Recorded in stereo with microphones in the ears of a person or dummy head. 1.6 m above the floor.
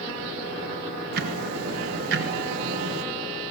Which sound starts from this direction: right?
Ticking, at 1.1 s.